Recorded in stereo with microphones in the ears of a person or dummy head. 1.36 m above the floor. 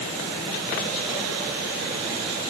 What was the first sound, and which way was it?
Only background noise.